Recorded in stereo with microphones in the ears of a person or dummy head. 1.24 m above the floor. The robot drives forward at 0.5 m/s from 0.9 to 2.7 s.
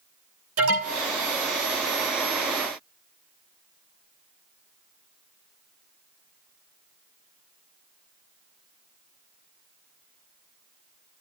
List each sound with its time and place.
0.6 s an alarm: 75° right (ahead or behind), 10 m